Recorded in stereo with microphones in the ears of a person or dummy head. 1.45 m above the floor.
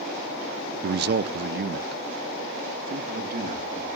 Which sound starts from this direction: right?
A man speaking, at 0.8 s.